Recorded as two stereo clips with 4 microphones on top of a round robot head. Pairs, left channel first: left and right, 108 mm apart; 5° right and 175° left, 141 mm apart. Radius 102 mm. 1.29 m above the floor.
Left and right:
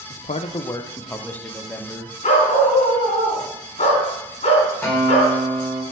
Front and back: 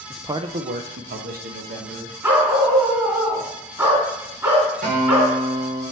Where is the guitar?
160° left, 4 m.